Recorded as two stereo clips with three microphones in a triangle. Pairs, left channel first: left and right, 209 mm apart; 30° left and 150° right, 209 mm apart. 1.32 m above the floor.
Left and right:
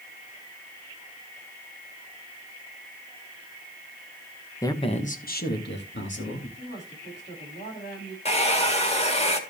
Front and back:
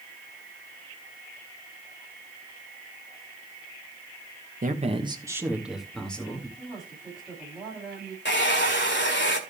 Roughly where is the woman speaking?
Behind left.